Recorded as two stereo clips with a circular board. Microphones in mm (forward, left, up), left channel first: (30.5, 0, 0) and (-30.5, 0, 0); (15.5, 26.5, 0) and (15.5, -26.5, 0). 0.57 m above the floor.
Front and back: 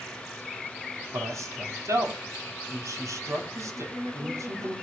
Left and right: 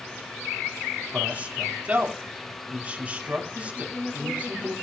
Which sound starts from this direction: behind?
A woman speaking, at 3.8 s.